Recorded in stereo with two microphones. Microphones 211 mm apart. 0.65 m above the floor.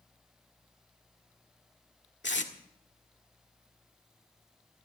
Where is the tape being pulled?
60° left (ahead or behind), 1.7 m.